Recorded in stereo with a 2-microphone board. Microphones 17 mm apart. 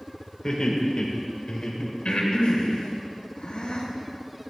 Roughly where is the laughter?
Left.